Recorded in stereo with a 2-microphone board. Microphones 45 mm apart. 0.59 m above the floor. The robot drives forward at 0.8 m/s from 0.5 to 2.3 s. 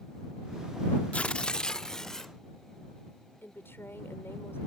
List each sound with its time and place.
1.1 s tearing paper: 30° left (ahead or behind); by 2.3 s 10° left (ahead or behind)
3.4 s a woman speaking: 60° left (ahead or behind)